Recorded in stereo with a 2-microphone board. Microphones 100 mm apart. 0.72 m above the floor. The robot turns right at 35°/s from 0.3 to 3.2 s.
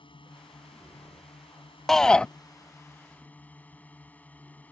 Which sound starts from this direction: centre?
A shout, at 1.9 s.